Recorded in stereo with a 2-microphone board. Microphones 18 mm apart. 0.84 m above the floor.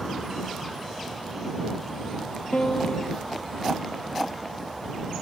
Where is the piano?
80° left.